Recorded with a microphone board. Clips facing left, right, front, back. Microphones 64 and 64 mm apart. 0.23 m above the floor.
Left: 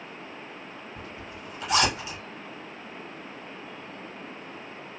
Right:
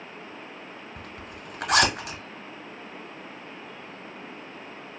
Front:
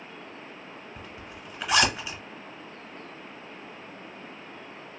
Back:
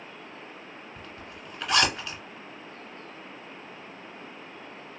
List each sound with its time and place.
1.0 s a zipper: 80° right, 0.8 m